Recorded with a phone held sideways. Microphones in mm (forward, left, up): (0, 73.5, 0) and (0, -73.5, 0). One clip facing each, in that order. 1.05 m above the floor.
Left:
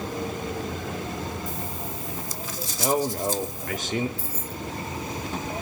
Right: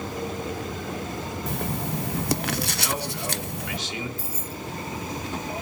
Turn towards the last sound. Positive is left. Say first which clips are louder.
# even
turn(degrees=-10)  # may be behind; listen again after turning